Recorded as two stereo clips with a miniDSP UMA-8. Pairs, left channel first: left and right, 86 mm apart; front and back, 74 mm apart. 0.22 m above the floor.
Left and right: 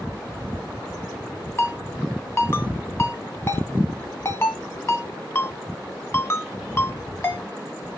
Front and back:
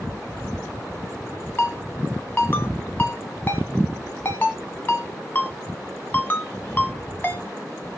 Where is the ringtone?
45° left, 0.7 m.